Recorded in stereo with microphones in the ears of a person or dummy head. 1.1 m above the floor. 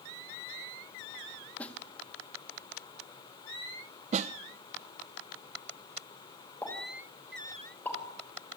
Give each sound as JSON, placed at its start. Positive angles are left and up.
{"t": 1.6, "sound": "a snare drum", "side_deg": 10, "distance_m": 1.6}
{"t": 4.1, "sound": "a snare drum", "side_deg": -35, "distance_m": 0.7}
{"t": 6.6, "sound": "a pop", "side_deg": 10, "distance_m": 6.5}